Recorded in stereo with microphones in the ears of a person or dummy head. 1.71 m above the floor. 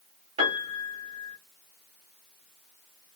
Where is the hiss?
No hiss in this recording.